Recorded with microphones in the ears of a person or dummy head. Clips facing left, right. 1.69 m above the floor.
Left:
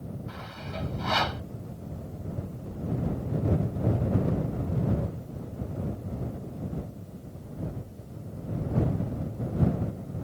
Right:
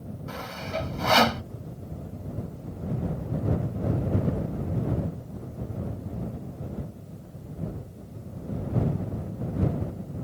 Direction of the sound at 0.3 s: 65° right (ahead or behind).